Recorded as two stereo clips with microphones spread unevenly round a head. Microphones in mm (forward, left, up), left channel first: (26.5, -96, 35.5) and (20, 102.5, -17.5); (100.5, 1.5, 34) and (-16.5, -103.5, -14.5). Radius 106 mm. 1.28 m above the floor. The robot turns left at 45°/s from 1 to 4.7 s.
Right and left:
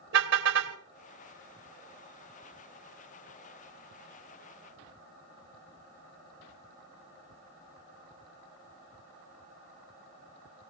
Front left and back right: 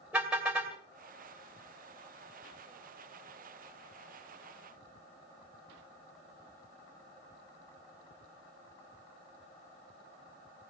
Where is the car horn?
130° left, 2.5 m.